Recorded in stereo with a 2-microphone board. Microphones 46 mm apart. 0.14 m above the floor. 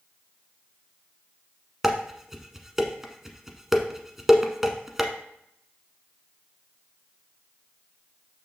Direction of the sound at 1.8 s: 10° right (ahead or behind).